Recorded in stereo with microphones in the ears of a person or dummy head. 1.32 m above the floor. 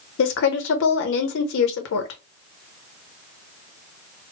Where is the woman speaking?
60° left (ahead or behind), 0.8 m.